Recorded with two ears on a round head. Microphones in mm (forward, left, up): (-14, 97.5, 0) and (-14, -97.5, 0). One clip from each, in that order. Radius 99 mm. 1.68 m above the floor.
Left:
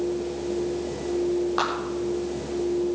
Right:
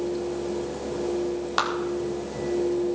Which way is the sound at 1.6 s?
55° right (ahead or behind).